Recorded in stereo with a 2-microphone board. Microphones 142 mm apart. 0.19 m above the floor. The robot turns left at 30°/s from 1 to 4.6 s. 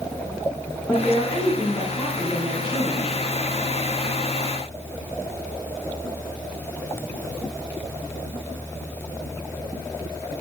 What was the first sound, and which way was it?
A woman speaking, 165° left.